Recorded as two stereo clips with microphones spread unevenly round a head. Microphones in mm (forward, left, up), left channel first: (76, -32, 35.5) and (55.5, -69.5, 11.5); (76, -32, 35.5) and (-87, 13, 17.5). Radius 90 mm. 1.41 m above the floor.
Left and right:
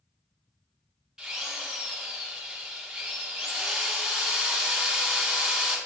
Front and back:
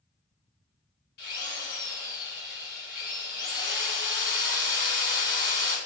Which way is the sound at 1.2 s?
45° right.